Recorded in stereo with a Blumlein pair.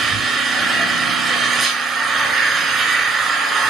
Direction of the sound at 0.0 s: 20° right.